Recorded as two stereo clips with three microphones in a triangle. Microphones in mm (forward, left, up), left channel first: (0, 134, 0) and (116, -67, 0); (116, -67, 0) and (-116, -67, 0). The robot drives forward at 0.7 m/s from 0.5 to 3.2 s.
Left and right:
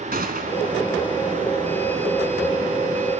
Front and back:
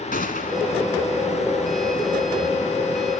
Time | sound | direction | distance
0.1 | a gunshot | 35° right | 2 m